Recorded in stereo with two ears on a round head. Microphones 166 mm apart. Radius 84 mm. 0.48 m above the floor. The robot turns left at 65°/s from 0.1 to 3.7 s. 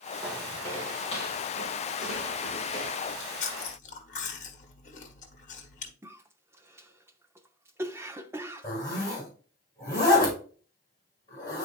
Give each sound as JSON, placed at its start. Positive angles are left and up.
{"t": 0.2, "sound": "footsteps", "side_deg": -10, "distance_m": 2.5}
{"t": 3.0, "sound": "chewing", "azimuth_deg": 125, "distance_m": 1.2}
{"t": 6.0, "sound": "a cough", "side_deg": -15, "distance_m": 0.7}
{"t": 8.6, "sound": "a zipper", "side_deg": 20, "distance_m": 3.5}